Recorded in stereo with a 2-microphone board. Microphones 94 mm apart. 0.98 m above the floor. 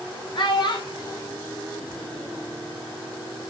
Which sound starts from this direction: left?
A child speaking, at 0.3 s.